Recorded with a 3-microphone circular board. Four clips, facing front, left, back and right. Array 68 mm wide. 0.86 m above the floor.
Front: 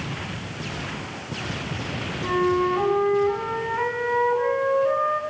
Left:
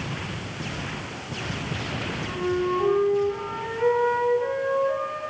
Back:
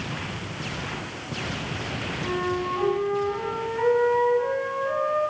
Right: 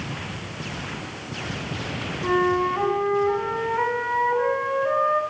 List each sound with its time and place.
2.2 s a flute: 60° right, 7 m